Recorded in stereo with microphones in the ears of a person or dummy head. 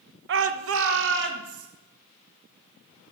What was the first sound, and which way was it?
A shout, 55° right (ahead or behind).